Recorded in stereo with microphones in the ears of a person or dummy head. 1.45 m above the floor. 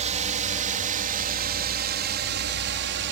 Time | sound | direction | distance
0.0 | a drone | 40° right (ahead or behind) | ?